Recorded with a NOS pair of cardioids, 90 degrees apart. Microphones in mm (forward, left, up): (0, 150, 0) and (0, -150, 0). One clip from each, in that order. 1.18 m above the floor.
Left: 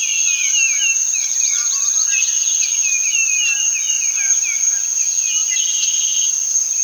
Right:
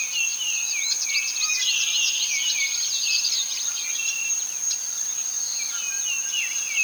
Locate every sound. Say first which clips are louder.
0.0 s an insect: left 7 dB; 70° left, 1.0 m